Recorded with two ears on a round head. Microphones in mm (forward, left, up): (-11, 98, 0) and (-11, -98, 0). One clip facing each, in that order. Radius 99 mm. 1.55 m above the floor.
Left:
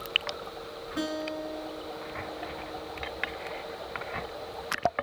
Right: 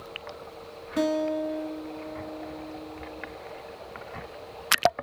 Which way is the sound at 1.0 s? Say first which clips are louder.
Right 8 dB; 45° right (ahead or behind).